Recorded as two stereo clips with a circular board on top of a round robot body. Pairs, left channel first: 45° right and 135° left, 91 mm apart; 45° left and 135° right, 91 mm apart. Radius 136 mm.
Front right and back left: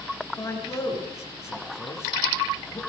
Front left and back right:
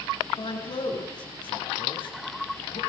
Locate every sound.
0.4 s a man speaking: 15° left, 8.5 m